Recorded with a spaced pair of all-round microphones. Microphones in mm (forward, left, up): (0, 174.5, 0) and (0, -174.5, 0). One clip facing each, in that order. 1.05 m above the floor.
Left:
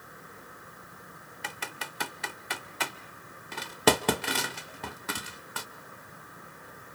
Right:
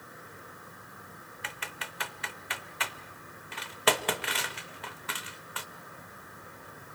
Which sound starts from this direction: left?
Typing on a keyboard, at 1.4 s.